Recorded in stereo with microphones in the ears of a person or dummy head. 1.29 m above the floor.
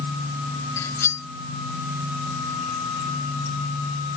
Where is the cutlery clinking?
15° left (ahead or behind).